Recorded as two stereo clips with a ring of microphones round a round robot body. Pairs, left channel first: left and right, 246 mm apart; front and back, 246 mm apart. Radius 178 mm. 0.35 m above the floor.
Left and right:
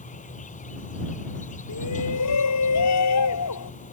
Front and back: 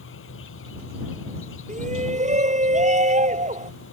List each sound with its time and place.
0.0 s an insect: 30° left
1.7 s a shout: 120° left